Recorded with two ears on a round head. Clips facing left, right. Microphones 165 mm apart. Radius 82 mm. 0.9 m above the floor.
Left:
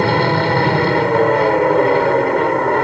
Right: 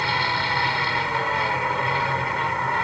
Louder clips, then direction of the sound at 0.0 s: Left 12 dB; 45° left (ahead or behind).